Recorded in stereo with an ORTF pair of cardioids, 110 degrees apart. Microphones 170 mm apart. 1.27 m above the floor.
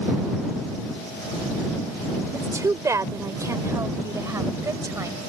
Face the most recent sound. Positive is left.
turn(degrees=-15)